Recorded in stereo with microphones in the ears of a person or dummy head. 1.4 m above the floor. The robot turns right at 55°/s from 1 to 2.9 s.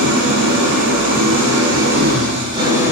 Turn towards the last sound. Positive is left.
turn(degrees=-10)